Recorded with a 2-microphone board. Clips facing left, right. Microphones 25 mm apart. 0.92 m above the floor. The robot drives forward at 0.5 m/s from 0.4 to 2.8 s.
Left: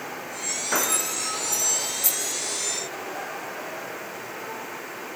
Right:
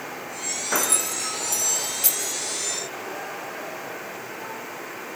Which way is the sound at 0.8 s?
85° right.